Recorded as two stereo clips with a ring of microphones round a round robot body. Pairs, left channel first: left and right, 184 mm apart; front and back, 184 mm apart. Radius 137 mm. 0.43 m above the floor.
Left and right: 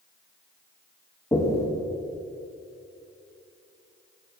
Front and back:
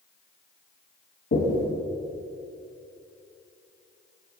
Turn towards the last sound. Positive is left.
turn(degrees=20)